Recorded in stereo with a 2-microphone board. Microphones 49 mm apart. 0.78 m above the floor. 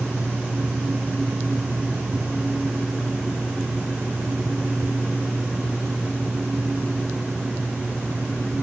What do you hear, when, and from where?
Only background noise.